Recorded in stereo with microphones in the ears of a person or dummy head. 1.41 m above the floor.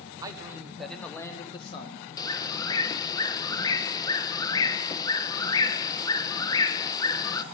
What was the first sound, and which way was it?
A man speaking, 25° right (ahead or behind).